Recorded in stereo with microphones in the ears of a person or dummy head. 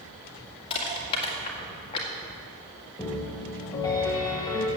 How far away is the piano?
About 1.2 m.